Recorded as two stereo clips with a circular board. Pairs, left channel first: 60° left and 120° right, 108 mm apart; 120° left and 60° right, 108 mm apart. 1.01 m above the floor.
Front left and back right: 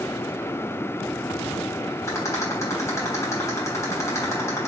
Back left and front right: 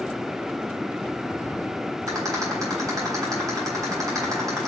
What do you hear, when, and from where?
2.1 s a rattle: straight ahead, 3.5 m